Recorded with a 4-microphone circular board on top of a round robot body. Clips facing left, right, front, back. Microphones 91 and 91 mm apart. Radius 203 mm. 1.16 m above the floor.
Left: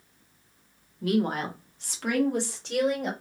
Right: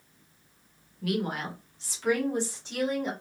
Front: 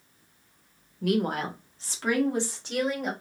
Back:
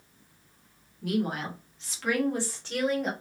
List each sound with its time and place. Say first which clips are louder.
1.0 s a woman speaking: left 4 dB, front 3 dB; 25° left, 1.0 m; by 3.1 s 80° left, 1.7 m